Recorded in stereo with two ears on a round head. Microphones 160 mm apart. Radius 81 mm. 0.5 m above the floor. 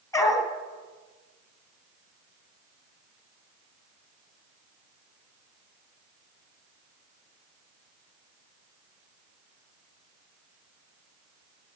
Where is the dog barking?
20° left (ahead or behind), 2.5 m.